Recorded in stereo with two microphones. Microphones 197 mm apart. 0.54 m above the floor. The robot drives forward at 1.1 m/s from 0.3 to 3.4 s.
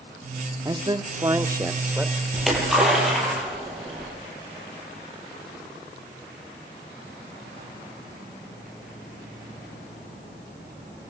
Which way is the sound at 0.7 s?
20° right (ahead or behind).